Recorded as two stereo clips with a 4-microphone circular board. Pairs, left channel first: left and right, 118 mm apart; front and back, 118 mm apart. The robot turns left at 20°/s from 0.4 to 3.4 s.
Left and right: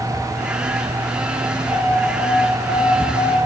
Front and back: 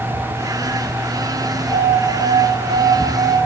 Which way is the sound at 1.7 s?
45° right.